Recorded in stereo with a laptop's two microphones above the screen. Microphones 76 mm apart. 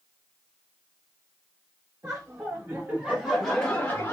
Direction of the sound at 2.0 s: 45° right (ahead or behind).